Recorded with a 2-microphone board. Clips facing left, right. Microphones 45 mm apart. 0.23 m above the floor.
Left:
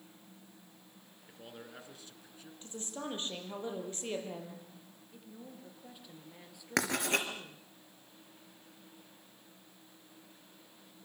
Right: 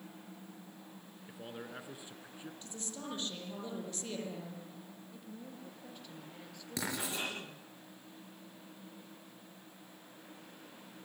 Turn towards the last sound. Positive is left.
turn(degrees=65)  # may be behind; listen again after turning